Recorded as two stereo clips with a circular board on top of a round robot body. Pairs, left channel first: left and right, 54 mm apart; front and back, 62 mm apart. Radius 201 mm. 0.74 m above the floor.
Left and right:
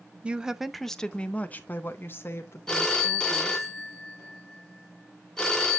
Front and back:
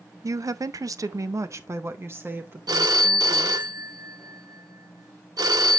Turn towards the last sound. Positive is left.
turn(degrees=165)